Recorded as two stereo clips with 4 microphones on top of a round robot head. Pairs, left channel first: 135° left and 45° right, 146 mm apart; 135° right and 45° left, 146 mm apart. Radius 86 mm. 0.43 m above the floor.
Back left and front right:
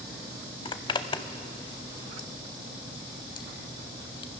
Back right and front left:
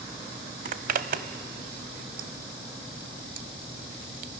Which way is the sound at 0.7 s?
75° left.